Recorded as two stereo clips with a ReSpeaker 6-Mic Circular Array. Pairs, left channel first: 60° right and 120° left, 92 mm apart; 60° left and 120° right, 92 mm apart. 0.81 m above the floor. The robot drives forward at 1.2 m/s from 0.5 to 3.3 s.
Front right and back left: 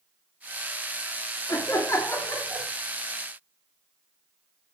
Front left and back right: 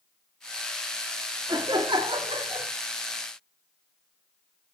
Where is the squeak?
I don't hear a squeak.